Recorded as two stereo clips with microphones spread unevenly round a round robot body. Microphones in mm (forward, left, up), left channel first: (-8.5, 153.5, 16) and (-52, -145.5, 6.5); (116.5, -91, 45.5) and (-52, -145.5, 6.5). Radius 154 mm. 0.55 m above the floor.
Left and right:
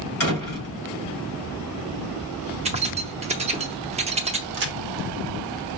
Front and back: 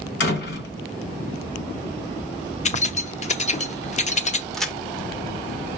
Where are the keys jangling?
35° right, 0.6 m.